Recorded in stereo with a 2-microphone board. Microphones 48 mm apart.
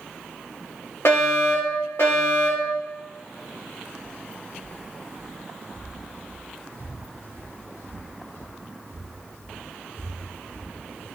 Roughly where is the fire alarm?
Left.